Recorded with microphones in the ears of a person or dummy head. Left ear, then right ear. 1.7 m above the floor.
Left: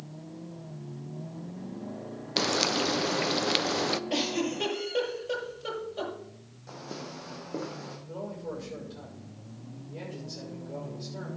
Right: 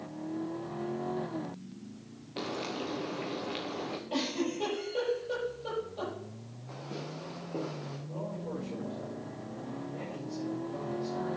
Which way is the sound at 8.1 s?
55° left (ahead or behind).